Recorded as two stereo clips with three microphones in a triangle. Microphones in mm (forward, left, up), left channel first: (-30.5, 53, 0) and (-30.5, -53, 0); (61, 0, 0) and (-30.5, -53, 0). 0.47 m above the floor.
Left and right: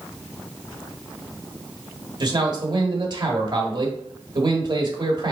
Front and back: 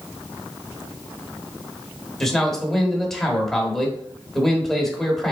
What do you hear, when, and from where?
2.2 s a man speaking: 55° right, 1.3 m